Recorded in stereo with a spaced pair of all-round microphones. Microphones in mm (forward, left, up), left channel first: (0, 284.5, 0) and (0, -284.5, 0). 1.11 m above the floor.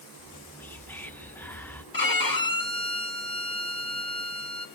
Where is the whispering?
5° left (ahead or behind), 0.8 m.